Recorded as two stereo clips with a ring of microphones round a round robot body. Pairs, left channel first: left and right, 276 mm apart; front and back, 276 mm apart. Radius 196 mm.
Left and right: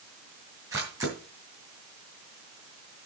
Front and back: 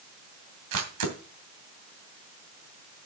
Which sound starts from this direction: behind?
A camera shutter, at 0.7 s.